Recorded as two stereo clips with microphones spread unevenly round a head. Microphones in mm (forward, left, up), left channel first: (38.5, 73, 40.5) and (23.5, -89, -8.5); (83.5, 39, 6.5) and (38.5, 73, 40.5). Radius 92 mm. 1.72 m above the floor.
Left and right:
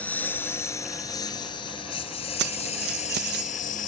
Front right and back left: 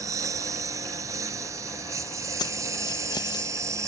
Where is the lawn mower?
160° left; by 3.9 s 130° left.